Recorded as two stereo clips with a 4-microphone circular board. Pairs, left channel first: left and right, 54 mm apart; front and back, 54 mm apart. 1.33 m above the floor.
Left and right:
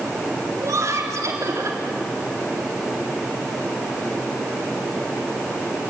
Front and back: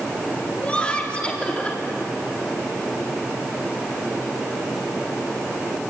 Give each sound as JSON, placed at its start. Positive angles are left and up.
{"t": 0.6, "sound": "laughter", "azimuth_deg": -70, "distance_m": 4.0}